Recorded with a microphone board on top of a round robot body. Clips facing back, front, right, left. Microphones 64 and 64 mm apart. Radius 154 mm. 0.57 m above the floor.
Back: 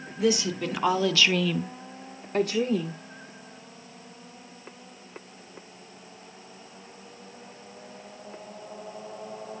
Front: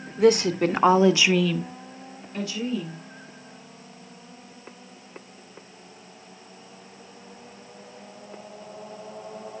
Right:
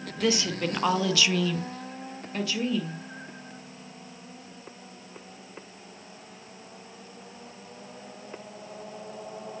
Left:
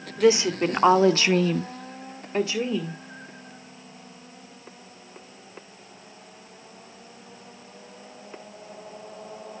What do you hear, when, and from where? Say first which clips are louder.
0.2 s a woman speaking: front 7 dB, left 7 dB; 20° left, 2.0 m; by 3.0 s 160° left, 2.5 m